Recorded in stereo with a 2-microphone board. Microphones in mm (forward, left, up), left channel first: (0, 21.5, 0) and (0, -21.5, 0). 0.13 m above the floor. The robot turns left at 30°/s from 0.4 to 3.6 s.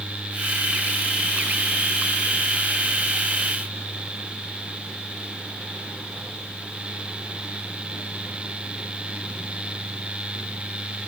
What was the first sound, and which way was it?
Only background noise.